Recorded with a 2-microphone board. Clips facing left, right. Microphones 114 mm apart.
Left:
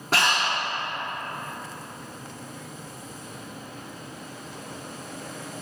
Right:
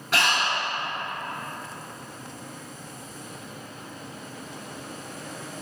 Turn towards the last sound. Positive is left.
turn(degrees=40)  # may be behind; listen again after turning